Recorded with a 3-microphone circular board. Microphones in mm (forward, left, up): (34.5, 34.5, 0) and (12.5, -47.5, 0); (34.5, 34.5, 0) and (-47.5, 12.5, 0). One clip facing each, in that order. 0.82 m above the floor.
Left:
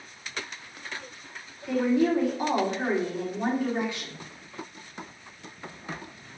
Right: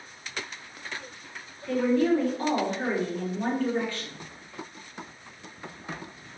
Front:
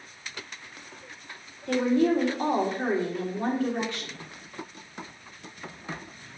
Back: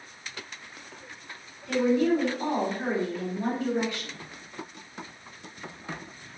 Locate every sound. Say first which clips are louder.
1.7 s a woman speaking: even, even; straight ahead, 1.8 m